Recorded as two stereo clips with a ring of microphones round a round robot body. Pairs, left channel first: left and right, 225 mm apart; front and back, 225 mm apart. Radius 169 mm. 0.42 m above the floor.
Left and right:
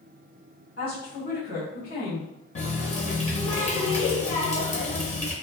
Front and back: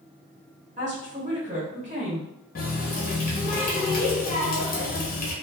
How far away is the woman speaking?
About 1.2 m.